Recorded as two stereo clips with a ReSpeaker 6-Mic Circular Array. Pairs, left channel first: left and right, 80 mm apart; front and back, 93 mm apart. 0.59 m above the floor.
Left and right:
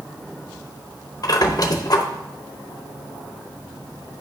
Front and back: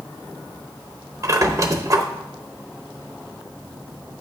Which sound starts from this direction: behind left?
A squeak, at 1.2 s.